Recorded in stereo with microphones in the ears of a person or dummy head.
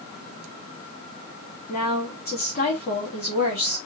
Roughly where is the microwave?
I don't hear a microwave.